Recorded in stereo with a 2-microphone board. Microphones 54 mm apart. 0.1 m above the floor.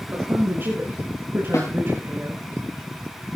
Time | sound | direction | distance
0.1 | a woman speaking | 40° right (ahead or behind) | 9 m
1.5 | a snare drum | 70° left (ahead or behind) | 6 m